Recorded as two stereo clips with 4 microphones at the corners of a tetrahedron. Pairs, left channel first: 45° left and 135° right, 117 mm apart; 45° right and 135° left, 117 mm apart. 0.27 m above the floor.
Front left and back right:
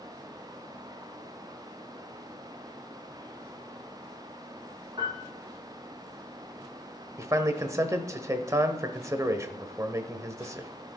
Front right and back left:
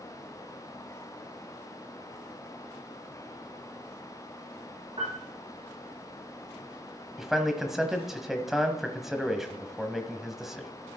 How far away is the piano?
About 4.5 m.